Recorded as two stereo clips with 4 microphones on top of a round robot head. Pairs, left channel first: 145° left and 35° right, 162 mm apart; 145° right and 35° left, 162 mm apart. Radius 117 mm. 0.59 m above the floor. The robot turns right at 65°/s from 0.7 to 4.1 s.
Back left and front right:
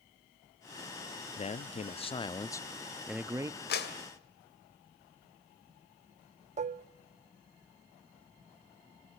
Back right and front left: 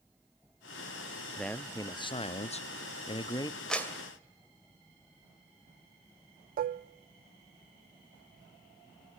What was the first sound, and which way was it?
A man speaking, 130° left.